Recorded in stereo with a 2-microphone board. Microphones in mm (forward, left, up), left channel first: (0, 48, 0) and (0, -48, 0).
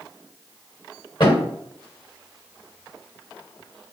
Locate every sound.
1.2 s a thud: 45° left (ahead or behind), 1.6 m